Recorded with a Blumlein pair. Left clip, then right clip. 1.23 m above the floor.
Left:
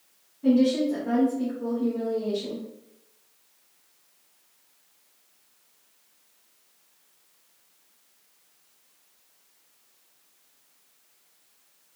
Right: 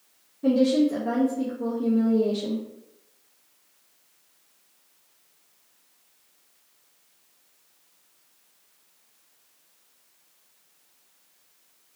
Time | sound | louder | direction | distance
0.4 | a woman speaking | right 1 dB | 70° right | 1.1 m